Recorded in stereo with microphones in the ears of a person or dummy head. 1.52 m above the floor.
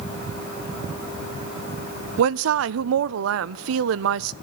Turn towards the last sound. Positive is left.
turn(degrees=-65)  # may be behind; listen again after turning